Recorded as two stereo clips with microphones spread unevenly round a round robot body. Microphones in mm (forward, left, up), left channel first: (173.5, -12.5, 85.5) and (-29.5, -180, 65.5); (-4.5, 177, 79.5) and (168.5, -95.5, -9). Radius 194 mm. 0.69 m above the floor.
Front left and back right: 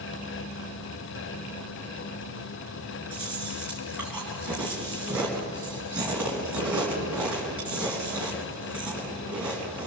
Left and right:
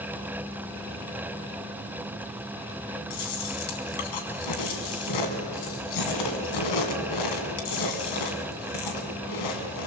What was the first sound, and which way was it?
Chewing, 135° left.